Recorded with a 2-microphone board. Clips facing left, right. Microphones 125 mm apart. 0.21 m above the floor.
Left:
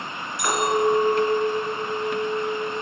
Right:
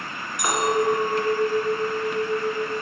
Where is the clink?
15° right (ahead or behind), 1.8 m.